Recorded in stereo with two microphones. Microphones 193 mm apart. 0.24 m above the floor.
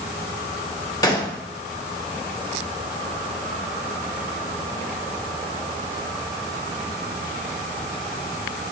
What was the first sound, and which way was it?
A gunshot, 20° left (ahead or behind).